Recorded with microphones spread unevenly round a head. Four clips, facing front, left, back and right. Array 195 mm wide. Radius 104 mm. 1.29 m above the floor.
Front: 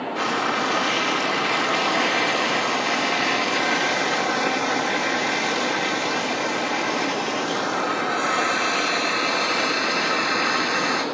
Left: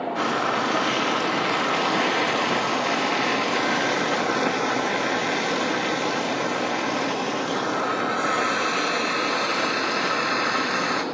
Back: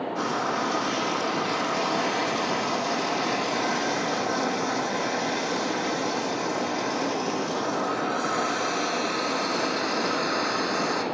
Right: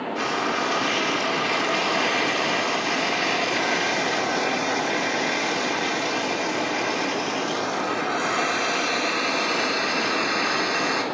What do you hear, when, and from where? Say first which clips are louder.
0.1 s frying: left 1 dB, front 4 dB; 65° left, 1.7 m